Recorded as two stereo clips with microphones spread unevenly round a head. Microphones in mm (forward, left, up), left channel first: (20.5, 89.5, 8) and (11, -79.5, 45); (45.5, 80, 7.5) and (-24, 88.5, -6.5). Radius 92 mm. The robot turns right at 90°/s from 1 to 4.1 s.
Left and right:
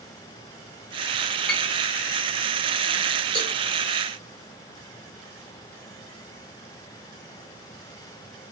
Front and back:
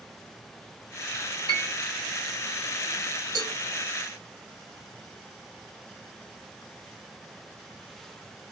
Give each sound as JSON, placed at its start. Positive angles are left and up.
{"t": 1.5, "sound": "a piano", "azimuth_deg": 10, "distance_m": 3.5}
{"t": 3.4, "sound": "a cowbell", "azimuth_deg": 175, "distance_m": 1.9}